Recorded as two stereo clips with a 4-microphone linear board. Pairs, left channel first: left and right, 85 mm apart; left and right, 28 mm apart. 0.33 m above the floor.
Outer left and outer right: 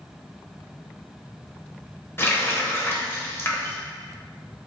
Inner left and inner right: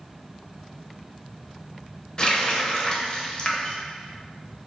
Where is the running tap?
30° left (ahead or behind), 0.6 m.